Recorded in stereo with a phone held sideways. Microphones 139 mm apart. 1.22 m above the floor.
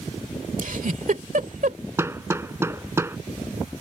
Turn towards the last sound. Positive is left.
turn(degrees=-20)  # may be behind; listen again after turning